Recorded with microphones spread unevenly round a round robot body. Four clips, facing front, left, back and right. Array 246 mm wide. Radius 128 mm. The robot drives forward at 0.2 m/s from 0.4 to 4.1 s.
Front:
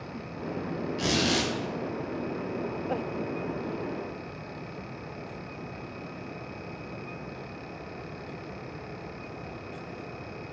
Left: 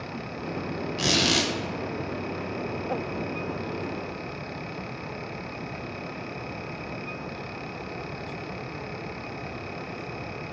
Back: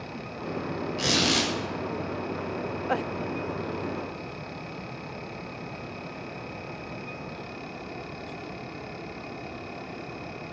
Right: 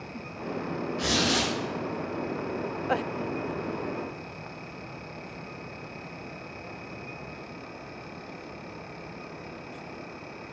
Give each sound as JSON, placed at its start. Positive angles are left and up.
{"t": 1.0, "sound": "a squeak", "azimuth_deg": 105, "distance_m": 1.2}